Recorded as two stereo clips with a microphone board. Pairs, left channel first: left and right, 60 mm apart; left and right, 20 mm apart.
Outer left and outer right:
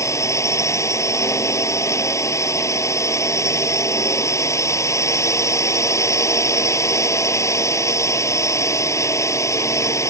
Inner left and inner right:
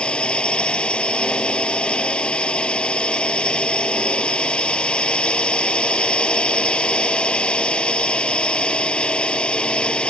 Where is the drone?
55° left (ahead or behind).